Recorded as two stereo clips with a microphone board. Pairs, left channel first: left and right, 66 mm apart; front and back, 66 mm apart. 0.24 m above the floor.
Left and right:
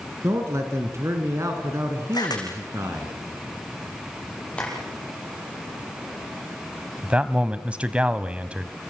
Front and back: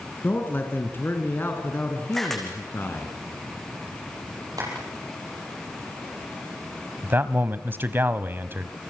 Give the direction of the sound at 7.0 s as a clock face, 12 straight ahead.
5 o'clock.